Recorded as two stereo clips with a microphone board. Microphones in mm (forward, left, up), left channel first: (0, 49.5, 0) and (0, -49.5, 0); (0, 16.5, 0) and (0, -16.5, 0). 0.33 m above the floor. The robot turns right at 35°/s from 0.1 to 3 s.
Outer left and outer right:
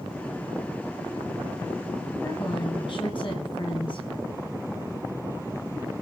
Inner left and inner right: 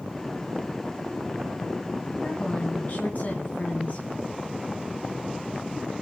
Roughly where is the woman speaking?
Left.